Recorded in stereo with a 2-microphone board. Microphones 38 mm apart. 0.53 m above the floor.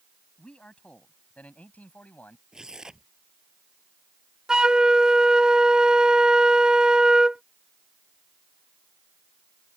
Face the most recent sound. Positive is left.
turn(degrees=-20)  # may be behind; listen again after turning